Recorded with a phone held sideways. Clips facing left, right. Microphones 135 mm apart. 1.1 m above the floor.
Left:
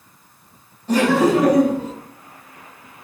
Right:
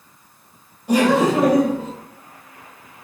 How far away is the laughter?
About 0.9 m.